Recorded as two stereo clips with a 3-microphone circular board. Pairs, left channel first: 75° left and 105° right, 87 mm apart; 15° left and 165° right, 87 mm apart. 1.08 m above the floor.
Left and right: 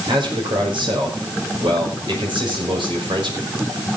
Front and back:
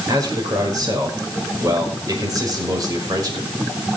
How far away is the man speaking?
About 5.5 m.